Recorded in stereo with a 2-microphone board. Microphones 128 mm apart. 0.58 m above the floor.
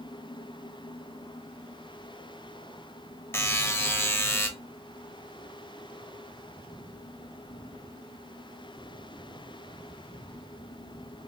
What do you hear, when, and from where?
3.3 s a buzzer: 20° left (ahead or behind), 0.8 m